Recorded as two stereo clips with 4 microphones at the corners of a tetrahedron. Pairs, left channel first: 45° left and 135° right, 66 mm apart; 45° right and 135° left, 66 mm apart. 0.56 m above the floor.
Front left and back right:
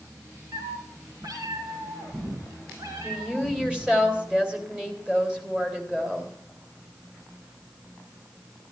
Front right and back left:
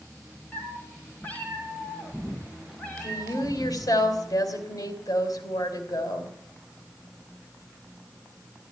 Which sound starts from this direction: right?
A cat meowing, at 0.5 s.